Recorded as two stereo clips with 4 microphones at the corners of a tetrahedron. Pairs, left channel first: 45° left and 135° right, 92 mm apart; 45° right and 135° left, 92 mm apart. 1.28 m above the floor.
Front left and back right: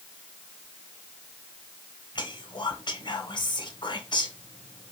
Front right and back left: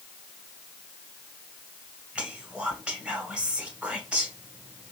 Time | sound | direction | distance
2.1 | whispering | 60° left | 0.8 m